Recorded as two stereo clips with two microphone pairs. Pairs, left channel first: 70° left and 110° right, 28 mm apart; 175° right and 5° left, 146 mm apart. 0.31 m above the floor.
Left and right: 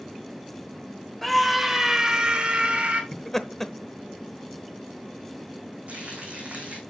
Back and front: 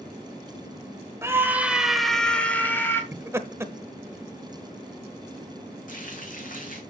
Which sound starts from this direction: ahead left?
Laughter, at 3.1 s.